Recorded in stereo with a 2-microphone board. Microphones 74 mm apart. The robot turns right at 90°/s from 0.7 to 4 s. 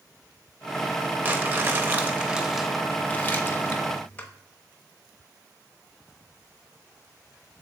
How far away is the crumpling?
About 0.9 m.